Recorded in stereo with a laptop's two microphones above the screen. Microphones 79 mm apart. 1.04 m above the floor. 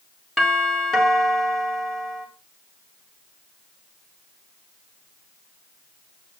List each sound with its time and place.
0.4 s a doorbell: 5° left (ahead or behind), 3.5 m